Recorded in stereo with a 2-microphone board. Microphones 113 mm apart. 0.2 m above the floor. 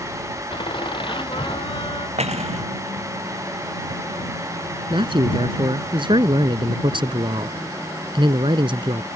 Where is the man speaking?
45° right (ahead or behind).